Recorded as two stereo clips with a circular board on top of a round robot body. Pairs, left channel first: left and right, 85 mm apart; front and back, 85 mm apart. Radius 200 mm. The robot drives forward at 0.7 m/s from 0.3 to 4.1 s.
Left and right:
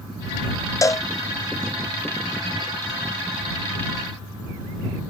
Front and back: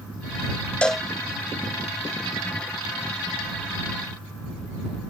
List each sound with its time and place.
0.8 s a cowbell: 70° left; by 1.1 s 100° left